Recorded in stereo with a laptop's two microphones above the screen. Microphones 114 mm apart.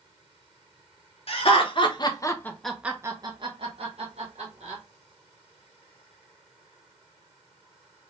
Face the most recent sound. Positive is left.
turn(degrees=-70)  # may be behind; listen again after turning